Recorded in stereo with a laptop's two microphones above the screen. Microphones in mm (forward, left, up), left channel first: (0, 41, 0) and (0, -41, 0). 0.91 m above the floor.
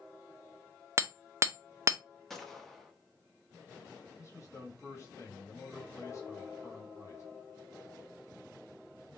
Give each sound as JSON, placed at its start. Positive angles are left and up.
{"t": 1.0, "sound": "hammering", "side_deg": -35, "distance_m": 0.6}
{"t": 2.3, "sound": "a gunshot", "side_deg": 0, "distance_m": 0.7}
{"t": 4.2, "sound": "a man speaking", "side_deg": 40, "distance_m": 1.8}